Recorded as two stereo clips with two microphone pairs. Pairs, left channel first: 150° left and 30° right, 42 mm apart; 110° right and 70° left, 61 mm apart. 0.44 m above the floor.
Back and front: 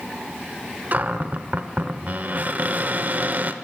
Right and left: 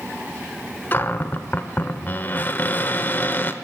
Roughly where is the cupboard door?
Ahead right.